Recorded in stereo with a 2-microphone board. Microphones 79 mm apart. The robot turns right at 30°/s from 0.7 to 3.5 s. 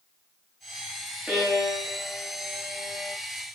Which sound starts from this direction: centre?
A violin, at 1.3 s.